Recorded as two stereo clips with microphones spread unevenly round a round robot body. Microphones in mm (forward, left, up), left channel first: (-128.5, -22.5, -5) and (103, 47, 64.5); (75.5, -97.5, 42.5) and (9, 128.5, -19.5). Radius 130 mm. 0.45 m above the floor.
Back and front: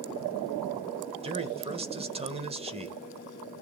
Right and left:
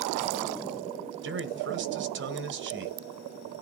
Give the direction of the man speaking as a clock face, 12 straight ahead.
9 o'clock.